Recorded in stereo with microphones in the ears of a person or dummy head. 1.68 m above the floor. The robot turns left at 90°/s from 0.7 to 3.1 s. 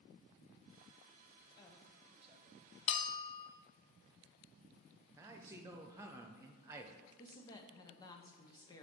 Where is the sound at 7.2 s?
25° left (ahead or behind), 0.8 m.